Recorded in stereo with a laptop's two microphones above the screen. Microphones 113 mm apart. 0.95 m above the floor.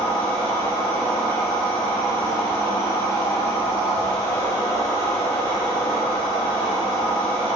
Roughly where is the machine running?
Left.